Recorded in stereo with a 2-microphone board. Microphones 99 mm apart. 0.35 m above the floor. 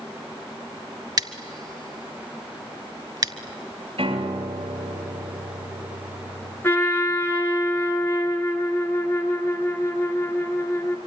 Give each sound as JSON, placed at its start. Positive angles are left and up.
{"t": 1.2, "sound": "scissors", "side_deg": -45, "distance_m": 1.0}
{"t": 4.0, "sound": "a piano", "side_deg": -70, "distance_m": 4.0}
{"t": 6.6, "sound": "a trumpet", "side_deg": 25, "distance_m": 2.5}